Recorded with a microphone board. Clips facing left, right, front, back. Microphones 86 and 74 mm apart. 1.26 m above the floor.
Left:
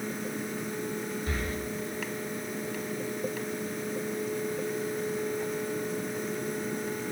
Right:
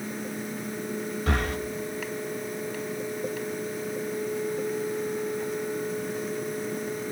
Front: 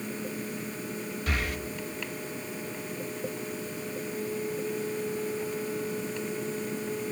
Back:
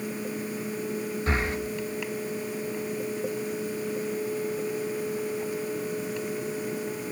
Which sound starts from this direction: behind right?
Breathing, at 1.3 s.